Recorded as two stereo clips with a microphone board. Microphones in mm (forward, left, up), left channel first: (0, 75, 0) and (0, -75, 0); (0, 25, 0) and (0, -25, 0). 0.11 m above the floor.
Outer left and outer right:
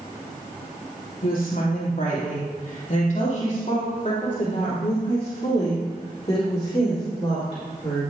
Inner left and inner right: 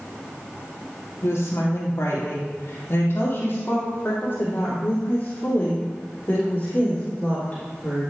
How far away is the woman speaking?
About 3.5 m.